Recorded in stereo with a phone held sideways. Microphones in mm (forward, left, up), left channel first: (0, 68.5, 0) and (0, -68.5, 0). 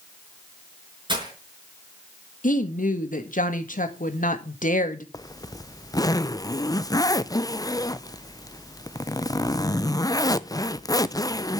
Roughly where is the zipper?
Left.